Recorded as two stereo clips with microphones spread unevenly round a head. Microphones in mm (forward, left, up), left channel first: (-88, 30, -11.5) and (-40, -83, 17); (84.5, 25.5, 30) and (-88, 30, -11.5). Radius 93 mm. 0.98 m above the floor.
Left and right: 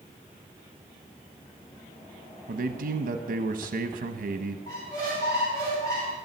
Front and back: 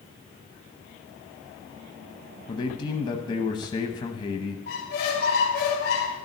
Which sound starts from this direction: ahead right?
A man speaking, at 2.5 s.